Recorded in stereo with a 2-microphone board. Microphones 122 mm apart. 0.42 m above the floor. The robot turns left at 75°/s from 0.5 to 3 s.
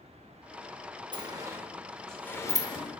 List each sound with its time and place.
1.1 s a sliding door: 40° right (ahead or behind), 0.5 m; by 3.0 s 45° left (ahead or behind), 0.5 m